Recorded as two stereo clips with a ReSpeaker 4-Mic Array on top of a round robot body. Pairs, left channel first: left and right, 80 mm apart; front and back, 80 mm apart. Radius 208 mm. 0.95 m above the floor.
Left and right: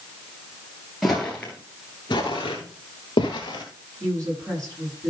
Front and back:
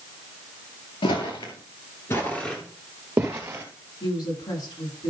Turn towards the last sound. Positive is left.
turn(degrees=-35)